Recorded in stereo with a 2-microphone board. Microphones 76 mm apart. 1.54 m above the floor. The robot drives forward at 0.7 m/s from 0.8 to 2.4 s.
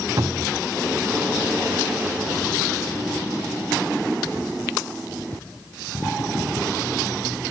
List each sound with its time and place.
0.2 s a cupboard door: 55° right (ahead or behind), 0.7 m